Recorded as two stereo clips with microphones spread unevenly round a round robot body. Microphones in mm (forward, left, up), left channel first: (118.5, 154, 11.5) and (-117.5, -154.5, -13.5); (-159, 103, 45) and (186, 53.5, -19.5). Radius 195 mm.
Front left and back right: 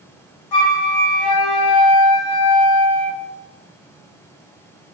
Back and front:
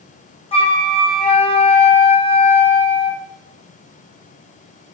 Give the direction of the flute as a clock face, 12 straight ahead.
9 o'clock.